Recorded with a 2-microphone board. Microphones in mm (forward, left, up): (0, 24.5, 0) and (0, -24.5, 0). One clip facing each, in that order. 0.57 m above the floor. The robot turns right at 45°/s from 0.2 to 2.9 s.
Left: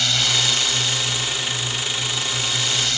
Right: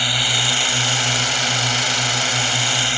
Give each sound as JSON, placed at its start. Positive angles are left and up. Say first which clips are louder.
{"t": 0.0, "sound": "a drone", "louder": "right 2 dB", "azimuth_deg": -160}